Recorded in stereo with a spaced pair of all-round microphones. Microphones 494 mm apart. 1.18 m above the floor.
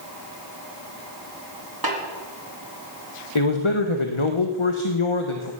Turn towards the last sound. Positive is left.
turn(degrees=75)  # may be behind; listen again after turning